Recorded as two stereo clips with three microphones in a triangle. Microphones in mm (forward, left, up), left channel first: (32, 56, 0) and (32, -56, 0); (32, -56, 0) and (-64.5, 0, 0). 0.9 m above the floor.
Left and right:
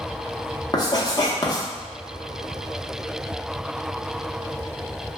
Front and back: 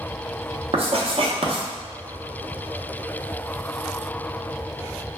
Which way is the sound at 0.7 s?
135° left.